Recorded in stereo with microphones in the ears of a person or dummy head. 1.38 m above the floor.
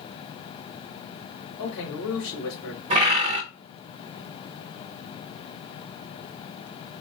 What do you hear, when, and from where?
1.6 s a man speaking: 70° left (ahead or behind), 2.5 m
2.9 s a bird: 30° right (ahead or behind), 0.6 m